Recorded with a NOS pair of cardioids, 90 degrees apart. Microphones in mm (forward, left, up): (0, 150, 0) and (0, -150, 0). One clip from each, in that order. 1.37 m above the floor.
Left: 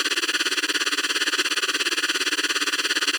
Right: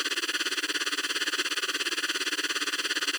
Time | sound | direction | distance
0.0 | a machine running | 45° left | ?